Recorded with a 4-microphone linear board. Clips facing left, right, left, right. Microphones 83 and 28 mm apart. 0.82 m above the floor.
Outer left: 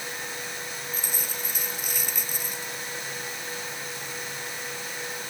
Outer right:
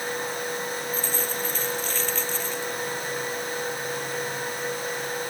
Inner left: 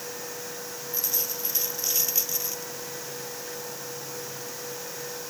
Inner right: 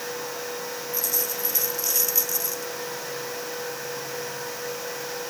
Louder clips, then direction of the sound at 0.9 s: Outer right 7 dB, inner right 1 dB; 15° left (ahead or behind).